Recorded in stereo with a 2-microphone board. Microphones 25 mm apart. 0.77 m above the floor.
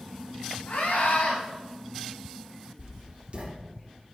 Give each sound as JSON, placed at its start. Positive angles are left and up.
{"t": 0.7, "sound": "a scream", "side_deg": 85, "distance_m": 4.5}
{"t": 2.8, "sound": "writing", "side_deg": -55, "distance_m": 2.0}